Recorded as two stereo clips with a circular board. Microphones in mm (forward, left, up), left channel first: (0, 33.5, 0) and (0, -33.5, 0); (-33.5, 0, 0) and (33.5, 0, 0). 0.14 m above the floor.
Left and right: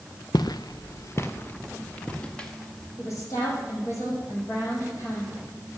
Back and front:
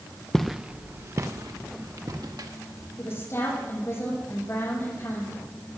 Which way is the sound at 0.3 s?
95° left.